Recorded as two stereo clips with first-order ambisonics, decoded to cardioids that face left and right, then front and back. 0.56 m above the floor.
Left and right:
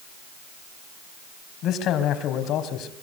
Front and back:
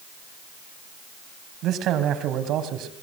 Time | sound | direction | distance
1.6 | a man speaking | 135° left | 3.5 m